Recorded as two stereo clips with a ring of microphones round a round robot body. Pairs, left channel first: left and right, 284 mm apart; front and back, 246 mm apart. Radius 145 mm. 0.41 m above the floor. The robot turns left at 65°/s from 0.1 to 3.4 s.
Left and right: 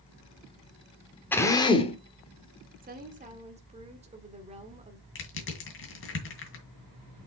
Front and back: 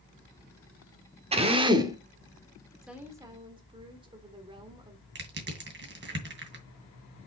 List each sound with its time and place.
1.3 s a drill: 165° left, 1.2 m; by 2.0 s 120° left, 1.2 m
2.8 s a woman speaking: 95° right, 1.2 m; by 5.0 s 130° right, 1.2 m
5.2 s crushing: 135° left, 2.5 m